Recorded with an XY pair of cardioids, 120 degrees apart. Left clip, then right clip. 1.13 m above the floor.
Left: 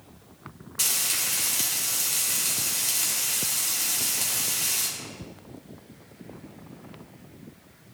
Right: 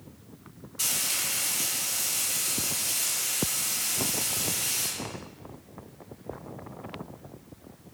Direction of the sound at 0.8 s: 45° left.